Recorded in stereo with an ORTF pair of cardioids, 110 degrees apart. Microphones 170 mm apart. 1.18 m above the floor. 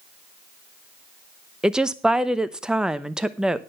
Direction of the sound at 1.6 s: 5° right.